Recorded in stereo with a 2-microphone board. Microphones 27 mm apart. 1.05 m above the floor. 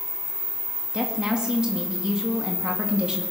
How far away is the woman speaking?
About 2 m.